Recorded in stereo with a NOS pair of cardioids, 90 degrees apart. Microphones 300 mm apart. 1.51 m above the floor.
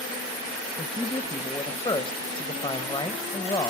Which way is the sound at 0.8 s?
15° left.